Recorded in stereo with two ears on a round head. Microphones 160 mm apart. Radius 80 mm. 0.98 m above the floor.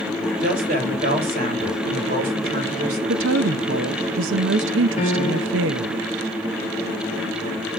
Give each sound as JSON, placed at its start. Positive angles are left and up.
{"t": 0.4, "sound": "a woman speaking", "side_deg": -55, "distance_m": 3.5}
{"t": 3.1, "sound": "a woman speaking", "side_deg": -80, "distance_m": 0.7}
{"t": 5.0, "sound": "a piano", "side_deg": 40, "distance_m": 1.6}